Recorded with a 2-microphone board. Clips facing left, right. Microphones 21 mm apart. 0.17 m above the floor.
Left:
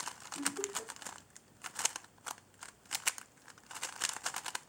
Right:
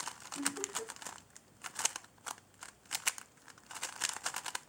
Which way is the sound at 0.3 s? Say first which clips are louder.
Even; 15° right (ahead or behind).